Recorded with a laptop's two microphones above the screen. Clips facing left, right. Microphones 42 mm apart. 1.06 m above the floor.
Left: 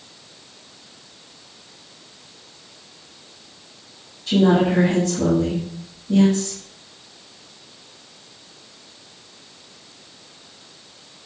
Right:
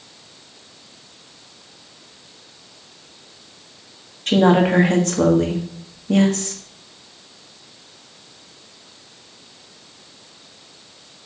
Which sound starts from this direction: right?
A woman speaking, at 4.3 s.